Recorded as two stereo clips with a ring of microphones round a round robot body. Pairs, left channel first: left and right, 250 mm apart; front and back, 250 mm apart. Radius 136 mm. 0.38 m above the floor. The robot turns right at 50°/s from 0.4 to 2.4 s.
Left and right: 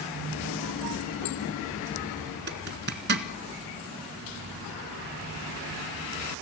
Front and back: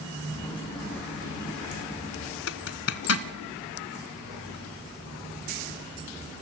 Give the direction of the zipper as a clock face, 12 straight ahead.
1 o'clock.